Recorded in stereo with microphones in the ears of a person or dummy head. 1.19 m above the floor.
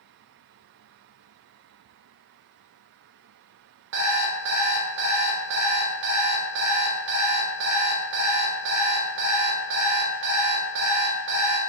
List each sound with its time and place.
3.9 s an alarm clock: 60° right (ahead or behind), 0.8 m